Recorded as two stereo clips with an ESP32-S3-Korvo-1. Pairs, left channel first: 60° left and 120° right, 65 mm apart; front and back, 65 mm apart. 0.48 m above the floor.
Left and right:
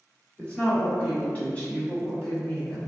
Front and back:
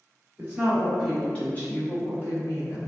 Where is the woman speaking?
120° left, 1.3 m; by 2.8 s 15° right, 1.8 m.